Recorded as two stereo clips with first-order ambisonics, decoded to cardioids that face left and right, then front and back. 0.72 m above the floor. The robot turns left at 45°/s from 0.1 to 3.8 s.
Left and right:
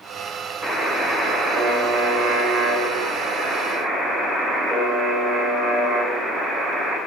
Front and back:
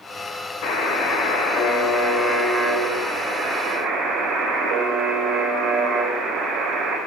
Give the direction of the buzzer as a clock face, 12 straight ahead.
12 o'clock.